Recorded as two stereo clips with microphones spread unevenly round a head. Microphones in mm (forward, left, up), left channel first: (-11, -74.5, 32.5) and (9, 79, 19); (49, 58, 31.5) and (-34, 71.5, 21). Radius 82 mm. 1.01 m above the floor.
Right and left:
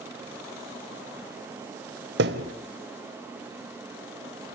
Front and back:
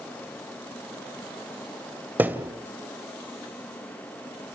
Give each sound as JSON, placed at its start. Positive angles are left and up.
{"t": 2.2, "sound": "a thud", "azimuth_deg": 100, "distance_m": 2.0}